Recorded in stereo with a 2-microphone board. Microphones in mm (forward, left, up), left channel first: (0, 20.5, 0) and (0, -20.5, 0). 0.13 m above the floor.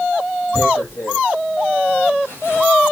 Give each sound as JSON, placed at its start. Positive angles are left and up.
{"t": 0.5, "sound": "tearing paper", "side_deg": 80, "distance_m": 5.0}